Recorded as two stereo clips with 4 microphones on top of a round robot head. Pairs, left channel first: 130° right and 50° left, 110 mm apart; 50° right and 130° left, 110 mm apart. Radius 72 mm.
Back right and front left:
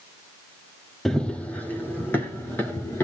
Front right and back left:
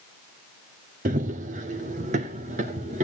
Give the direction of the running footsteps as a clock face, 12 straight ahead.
7 o'clock.